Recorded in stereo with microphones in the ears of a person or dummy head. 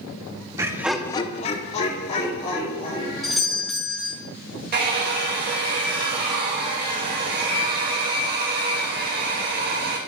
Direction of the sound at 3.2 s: Centre (ahead or behind).